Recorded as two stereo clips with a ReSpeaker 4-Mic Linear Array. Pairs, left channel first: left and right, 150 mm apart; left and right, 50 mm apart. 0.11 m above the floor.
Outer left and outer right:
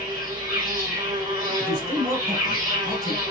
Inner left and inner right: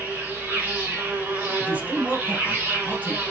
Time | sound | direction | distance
0.0 | an insect | 30° right (ahead or behind) | 3 m
1.6 | a man speaking | 25° right (ahead or behind) | 1.7 m